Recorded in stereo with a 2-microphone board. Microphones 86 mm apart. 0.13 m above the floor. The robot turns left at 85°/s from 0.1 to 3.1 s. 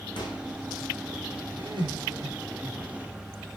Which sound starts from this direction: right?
Laughter, at 1.6 s.